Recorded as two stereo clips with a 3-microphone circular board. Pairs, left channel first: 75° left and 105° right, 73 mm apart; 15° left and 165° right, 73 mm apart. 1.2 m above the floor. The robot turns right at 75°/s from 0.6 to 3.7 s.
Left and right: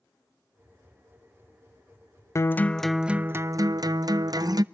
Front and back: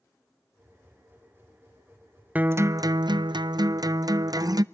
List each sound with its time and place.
2.4 s a guitar: 125° left, 0.5 m; by 4.6 s 135° right, 0.5 m